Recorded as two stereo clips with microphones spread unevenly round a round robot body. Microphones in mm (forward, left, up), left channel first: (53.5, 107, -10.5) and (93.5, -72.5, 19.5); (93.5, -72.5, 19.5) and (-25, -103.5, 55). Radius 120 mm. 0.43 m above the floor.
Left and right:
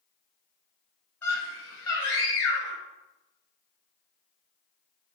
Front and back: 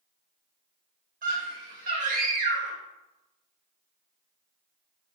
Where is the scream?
Straight behind, 2.5 m.